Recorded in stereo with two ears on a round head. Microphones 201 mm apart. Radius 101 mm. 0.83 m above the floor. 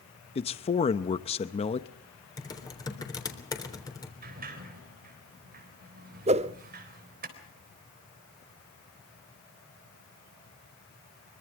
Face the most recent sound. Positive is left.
turn(degrees=-30)  # may be behind; listen again after turning